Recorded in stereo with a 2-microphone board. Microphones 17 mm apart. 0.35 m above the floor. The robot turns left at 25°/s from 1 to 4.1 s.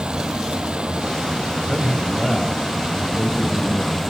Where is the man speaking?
100° left, 1.7 m; by 4.0 s 40° left, 1.7 m.